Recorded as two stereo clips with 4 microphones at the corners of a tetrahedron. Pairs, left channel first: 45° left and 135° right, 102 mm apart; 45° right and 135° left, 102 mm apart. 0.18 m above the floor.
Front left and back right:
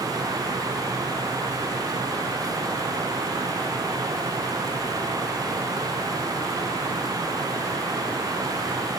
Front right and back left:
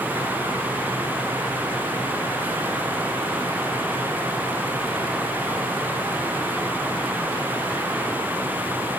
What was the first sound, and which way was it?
Only background noise.